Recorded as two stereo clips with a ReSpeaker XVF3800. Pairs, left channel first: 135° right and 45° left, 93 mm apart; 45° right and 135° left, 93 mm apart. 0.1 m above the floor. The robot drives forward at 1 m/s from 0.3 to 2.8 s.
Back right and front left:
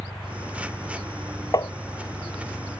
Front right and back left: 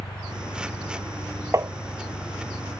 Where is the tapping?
175° right.